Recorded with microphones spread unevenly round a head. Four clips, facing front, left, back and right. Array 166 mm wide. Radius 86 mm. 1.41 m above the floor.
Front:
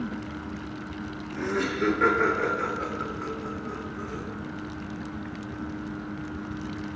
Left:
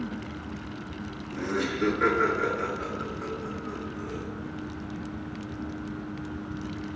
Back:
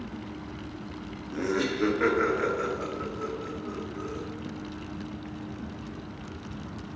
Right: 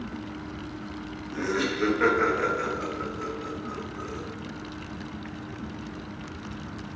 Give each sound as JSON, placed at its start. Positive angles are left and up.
{"t": 1.3, "sound": "laughter", "azimuth_deg": -155, "distance_m": 1.0}